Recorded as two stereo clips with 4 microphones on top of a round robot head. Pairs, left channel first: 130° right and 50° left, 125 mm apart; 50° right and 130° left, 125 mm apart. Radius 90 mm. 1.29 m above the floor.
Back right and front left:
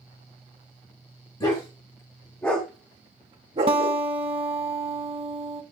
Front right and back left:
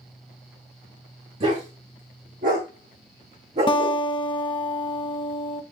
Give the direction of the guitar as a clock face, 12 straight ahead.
12 o'clock.